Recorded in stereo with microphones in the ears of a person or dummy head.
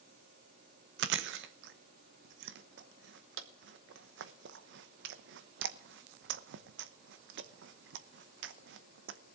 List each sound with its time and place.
1.0 s chewing: 65° right (ahead or behind), 0.7 m